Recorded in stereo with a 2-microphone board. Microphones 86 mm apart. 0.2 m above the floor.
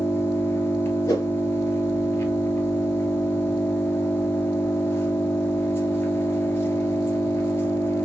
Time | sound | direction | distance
0.0 | an engine running | 30° left (ahead or behind) | 1.6 m
1.1 | a whoosh | 35° left (ahead or behind) | 2 m